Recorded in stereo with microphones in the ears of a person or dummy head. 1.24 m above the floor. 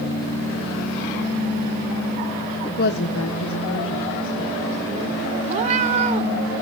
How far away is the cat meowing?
About 1.0 m.